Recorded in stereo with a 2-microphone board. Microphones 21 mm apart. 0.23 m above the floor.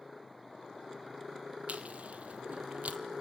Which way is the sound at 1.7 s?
75° right (ahead or behind).